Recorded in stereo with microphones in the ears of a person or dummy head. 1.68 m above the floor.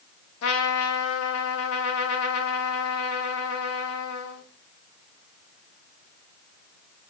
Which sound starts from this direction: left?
A trumpet, at 0.4 s.